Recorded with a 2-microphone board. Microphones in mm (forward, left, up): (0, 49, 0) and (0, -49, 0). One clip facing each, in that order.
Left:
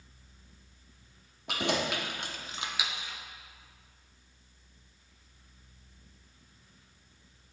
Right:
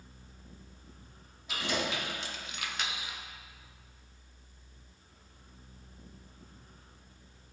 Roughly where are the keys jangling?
Left.